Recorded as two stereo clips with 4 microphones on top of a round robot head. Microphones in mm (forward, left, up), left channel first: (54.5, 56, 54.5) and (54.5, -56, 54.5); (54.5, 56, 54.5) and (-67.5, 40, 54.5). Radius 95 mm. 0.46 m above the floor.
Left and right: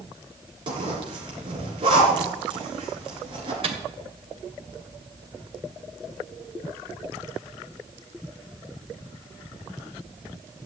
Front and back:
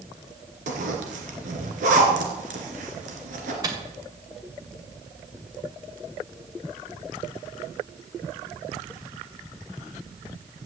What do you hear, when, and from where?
0.7 s a zipper: 145° right, 2.5 m
3.6 s a microwave: 115° right, 2 m